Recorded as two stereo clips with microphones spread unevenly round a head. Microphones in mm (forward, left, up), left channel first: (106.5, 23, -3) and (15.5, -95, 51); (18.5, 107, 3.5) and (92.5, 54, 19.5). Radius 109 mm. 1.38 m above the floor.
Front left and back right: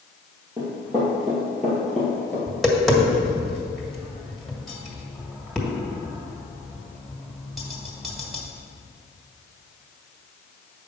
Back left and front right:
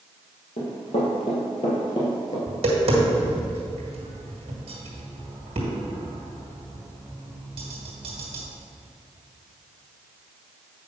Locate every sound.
0.6 s running footsteps: 165° left, 2.5 m; by 2.4 s 160° left, 1.6 m
2.5 s tapping: 40° right, 1.7 m